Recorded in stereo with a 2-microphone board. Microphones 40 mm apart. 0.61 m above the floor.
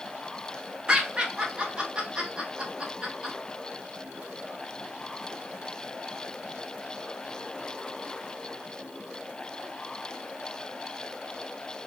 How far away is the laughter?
About 0.9 m.